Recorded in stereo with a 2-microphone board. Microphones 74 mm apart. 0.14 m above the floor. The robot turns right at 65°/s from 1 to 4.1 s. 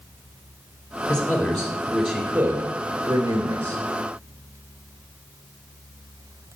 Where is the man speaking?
145° left, 2 m; by 3.8 s 40° right, 2 m.